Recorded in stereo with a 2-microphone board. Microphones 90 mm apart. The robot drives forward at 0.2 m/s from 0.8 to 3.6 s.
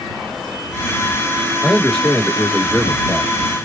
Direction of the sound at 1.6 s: 10° left (ahead or behind).